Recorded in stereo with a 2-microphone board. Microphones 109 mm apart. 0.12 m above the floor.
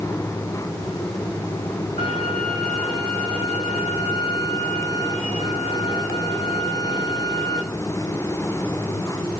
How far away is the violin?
About 5.5 m.